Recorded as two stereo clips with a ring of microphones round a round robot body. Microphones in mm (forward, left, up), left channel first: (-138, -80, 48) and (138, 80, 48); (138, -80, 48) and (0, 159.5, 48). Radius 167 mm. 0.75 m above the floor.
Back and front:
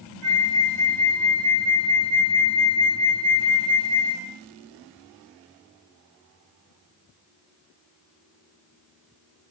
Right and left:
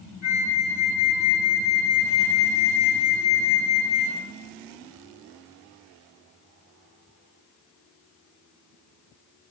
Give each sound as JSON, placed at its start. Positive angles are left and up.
{"t": 0.2, "sound": "a flute", "azimuth_deg": -35, "distance_m": 1.4}